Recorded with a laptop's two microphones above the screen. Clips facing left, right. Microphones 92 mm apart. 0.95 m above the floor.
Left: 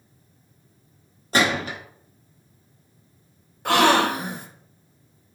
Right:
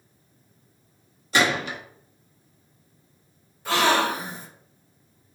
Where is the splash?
No splash in this recording.